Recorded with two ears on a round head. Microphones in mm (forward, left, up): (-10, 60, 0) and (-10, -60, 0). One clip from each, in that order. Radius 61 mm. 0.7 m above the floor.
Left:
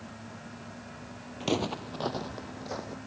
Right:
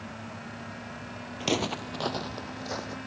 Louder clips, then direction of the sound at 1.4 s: Right 2 dB; 25° right (ahead or behind).